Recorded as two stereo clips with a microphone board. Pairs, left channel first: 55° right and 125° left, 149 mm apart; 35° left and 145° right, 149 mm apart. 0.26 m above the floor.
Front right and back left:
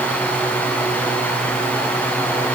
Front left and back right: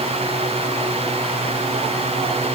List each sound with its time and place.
Only background noise.